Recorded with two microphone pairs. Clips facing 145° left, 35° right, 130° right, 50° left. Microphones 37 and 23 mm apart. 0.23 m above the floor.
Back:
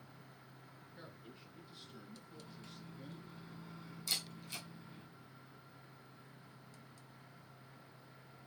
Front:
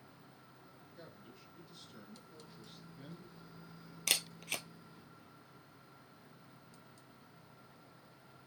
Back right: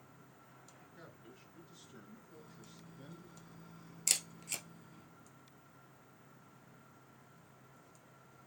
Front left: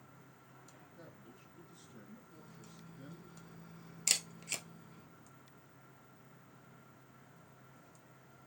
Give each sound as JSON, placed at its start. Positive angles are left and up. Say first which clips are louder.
{"t": 0.9, "sound": "a man speaking", "louder": "even, back right 1 dB", "azimuth_deg": -165, "distance_m": 3.0}
{"t": 2.3, "sound": "a microwave", "louder": "back 1 dB, even", "azimuth_deg": 140, "distance_m": 1.4}
{"t": 4.1, "sound": "a camera shutter", "louder": "front 6 dB, front left 1 dB", "azimuth_deg": -20, "distance_m": 0.7}